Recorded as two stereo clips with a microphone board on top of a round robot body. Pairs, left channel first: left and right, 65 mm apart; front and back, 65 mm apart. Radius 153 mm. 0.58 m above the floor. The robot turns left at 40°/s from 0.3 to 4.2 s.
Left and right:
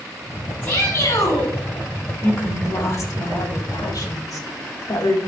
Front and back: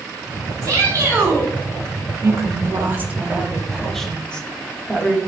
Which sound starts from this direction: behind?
A shout, at 0.6 s.